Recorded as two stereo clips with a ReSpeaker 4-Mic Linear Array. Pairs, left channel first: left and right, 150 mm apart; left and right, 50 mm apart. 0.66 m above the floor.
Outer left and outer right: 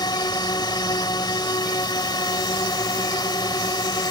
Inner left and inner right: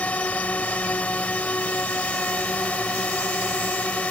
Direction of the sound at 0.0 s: 30° left (ahead or behind).